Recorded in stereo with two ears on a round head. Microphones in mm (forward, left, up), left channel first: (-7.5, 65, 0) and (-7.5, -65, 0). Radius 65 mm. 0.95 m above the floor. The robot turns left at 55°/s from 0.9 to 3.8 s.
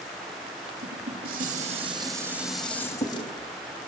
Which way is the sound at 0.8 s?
90° right.